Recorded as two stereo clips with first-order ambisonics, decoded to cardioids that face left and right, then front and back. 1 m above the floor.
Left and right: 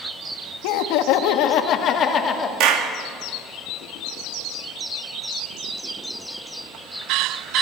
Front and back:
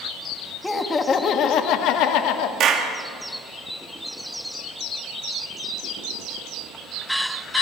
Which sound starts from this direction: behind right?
A clap, at 2.6 s.